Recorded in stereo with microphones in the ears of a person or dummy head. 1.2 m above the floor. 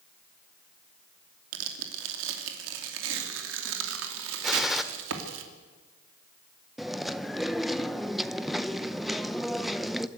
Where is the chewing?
5° right (ahead or behind), 0.6 m.